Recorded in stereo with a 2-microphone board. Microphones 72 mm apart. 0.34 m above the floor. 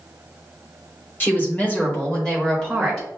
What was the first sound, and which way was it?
A woman speaking, 25° left (ahead or behind).